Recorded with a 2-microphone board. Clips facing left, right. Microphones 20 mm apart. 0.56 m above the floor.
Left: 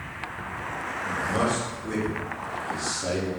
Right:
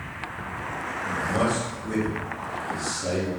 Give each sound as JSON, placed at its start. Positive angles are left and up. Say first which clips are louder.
{"t": 1.1, "sound": "a man speaking", "louder": "right 1 dB", "side_deg": 20, "distance_m": 1.6}